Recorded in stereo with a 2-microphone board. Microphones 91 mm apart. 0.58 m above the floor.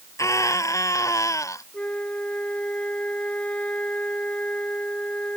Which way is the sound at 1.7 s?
15° left (ahead or behind).